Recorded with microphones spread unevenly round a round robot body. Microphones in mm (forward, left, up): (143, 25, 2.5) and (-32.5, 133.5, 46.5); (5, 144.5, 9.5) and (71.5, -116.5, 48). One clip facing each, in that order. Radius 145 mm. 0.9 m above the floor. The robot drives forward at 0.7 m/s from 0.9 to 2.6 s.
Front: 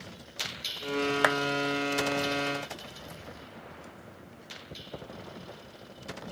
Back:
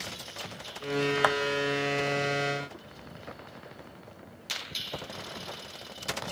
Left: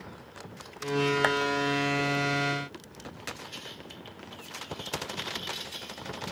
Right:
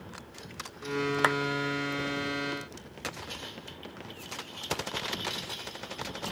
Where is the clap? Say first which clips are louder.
Even, left 1 dB; 5° left; by 1.4 s 10° left.